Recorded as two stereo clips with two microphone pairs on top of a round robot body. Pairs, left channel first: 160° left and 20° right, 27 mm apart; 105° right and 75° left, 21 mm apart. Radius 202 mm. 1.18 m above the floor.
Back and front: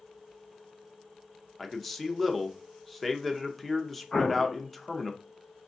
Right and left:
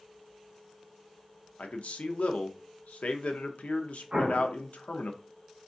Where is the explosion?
125° left, 0.6 m.